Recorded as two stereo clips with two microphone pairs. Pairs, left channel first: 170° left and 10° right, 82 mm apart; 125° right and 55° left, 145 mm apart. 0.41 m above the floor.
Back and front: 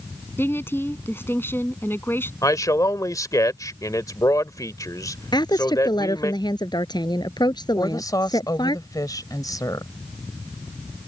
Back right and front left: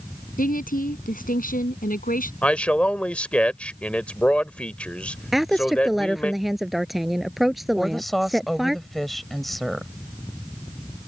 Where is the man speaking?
155° left.